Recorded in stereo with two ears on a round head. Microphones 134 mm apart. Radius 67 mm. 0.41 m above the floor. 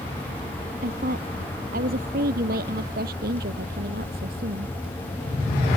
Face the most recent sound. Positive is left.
turn(degrees=-70)  # may be behind; listen again after turning